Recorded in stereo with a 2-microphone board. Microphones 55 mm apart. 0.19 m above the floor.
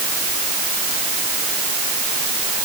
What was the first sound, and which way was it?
Only background noise.